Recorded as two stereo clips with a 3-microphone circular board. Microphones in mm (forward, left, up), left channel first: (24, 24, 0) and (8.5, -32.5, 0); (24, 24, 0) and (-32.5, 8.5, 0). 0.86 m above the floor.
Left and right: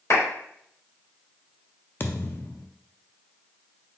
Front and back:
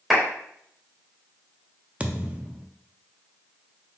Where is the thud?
125° left, 0.5 m.